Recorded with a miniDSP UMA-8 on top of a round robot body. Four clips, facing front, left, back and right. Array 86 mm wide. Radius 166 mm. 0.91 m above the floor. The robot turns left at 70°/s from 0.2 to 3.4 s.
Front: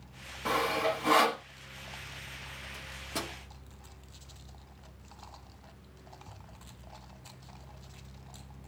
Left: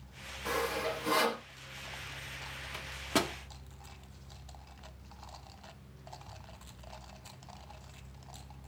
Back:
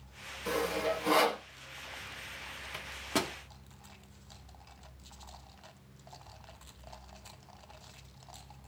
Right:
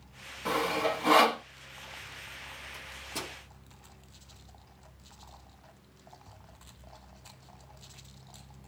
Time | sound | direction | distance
0.5 | sawing | 20° right | 1.8 m
2.7 | a microwave | 150° left | 0.8 m